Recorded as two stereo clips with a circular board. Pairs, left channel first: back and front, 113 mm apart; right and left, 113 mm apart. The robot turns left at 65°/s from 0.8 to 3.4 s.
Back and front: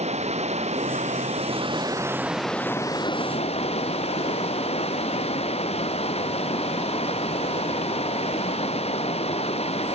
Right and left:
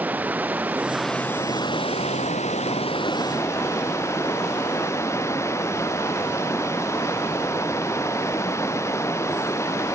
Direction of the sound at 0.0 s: 15° left.